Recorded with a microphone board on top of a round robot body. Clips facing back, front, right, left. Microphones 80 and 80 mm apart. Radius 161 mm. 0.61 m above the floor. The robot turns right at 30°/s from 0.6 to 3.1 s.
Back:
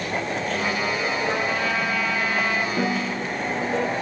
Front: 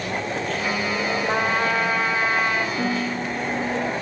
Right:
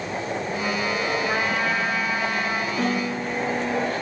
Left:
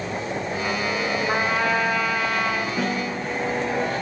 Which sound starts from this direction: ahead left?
A trumpet, at 1.3 s.